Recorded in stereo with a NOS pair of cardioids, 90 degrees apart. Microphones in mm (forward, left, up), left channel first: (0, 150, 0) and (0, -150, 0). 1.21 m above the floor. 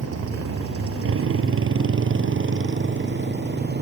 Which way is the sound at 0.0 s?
50° right.